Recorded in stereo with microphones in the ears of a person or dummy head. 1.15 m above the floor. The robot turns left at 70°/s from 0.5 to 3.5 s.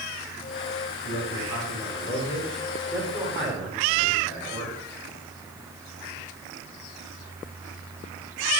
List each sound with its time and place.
1.0 s a man speaking: 130° left, 9.5 m; by 4.8 s 45° right, 9.5 m